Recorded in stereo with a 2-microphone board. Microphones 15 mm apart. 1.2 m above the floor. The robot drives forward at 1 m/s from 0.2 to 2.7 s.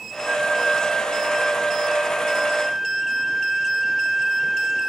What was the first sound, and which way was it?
A flute, 80° right.